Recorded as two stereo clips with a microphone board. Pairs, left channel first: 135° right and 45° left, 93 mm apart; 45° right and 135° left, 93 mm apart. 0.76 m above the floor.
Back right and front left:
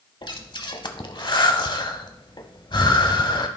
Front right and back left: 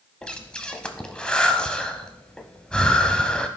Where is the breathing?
120° right, 0.8 m.